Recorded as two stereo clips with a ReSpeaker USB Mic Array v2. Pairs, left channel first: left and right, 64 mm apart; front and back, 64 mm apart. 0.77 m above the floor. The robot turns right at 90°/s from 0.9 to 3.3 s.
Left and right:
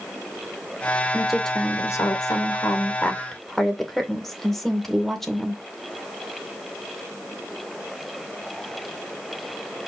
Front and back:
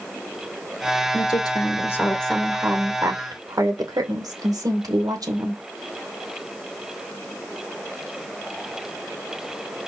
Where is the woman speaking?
20° right, 2 m; by 5.6 s 175° left, 2 m.